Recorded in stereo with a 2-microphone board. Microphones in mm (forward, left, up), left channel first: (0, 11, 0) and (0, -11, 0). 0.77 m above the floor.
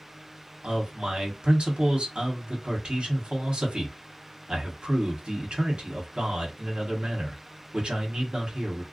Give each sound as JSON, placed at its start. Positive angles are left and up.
{"t": 0.6, "sound": "a man speaking", "side_deg": -70, "distance_m": 1.1}